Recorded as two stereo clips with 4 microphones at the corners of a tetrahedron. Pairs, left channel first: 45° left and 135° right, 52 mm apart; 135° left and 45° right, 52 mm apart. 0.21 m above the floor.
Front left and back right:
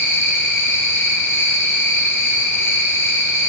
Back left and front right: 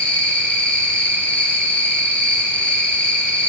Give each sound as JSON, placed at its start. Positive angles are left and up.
{"t": 0.0, "sound": "an insect", "azimuth_deg": 70, "distance_m": 1.8}